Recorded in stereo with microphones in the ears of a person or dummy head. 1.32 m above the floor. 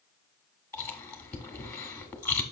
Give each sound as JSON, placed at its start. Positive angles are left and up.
{"t": 0.7, "sound": "chewing", "side_deg": 15, "distance_m": 1.0}